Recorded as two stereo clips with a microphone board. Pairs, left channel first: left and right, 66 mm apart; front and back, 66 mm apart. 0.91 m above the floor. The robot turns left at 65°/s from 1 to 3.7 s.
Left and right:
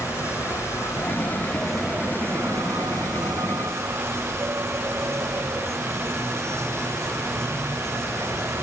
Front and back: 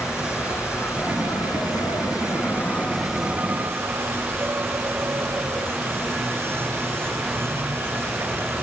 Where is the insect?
45° left; by 8.6 s 130° right.